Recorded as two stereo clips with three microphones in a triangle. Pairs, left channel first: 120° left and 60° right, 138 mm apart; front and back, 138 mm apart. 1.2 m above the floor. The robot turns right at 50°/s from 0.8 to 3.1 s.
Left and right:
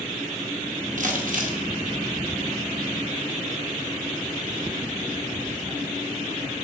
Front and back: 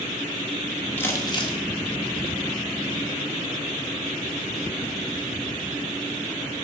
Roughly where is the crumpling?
Right.